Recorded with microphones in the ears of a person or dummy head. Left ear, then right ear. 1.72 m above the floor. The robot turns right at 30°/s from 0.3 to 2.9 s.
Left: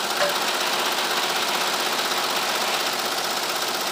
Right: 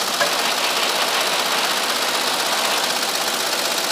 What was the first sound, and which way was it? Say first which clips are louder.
Tapping: right 3 dB; 55° left (ahead or behind).